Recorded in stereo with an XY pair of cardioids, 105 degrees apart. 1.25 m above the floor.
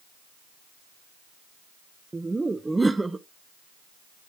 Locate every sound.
2.1 s laughter: 15° right, 0.9 m